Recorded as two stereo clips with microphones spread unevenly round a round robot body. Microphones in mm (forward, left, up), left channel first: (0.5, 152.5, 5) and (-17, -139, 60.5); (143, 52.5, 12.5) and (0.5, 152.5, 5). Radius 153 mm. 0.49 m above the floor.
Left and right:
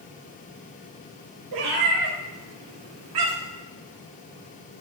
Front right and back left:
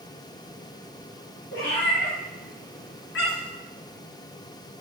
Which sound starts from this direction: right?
A cat meowing, at 1.5 s.